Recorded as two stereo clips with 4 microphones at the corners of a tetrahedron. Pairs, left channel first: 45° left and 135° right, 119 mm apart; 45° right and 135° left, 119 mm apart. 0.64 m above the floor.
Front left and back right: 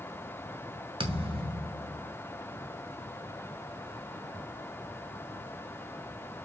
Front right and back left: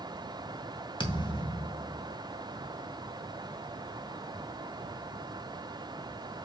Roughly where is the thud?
Right.